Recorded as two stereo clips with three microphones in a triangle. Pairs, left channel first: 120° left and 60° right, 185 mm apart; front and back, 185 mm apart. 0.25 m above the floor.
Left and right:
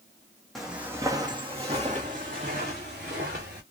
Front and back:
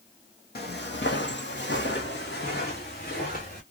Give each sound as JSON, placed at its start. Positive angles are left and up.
{"t": 0.6, "sound": "footsteps", "azimuth_deg": 30, "distance_m": 0.9}